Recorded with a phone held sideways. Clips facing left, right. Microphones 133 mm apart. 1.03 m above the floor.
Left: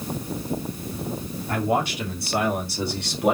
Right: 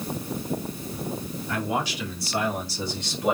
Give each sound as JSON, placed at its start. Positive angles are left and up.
{"t": 1.5, "sound": "a man speaking", "side_deg": 50, "distance_m": 3.0}